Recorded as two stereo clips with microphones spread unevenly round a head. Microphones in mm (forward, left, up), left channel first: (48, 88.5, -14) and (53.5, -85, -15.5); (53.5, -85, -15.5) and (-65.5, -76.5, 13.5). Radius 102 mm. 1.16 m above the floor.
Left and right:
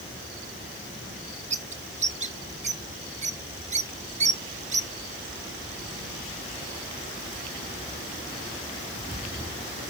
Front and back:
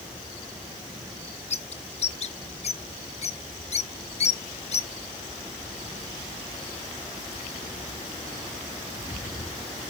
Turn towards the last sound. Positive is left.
turn(degrees=-35)